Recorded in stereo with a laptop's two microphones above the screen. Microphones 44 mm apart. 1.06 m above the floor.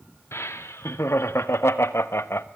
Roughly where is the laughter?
Left.